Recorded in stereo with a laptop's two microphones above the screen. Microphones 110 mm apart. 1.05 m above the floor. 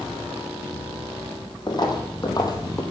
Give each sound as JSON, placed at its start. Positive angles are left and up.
{"t": 1.7, "sound": "footsteps", "side_deg": 40, "distance_m": 2.5}